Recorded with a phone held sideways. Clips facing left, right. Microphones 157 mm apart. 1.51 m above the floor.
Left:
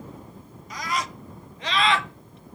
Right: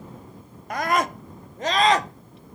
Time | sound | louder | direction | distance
0.7 | a scream | right 7 dB | 60° right (ahead or behind) | ?